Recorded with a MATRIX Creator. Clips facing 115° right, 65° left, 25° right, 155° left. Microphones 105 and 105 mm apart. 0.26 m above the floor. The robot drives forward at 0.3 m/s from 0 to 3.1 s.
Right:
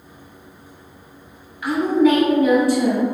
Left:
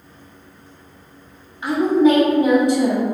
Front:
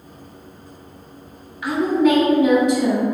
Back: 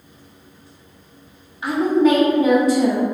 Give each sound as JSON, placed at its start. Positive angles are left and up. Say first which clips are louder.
{"t": 1.6, "sound": "a woman speaking", "louder": "left 1 dB, back 1 dB", "azimuth_deg": 115, "distance_m": 1.6}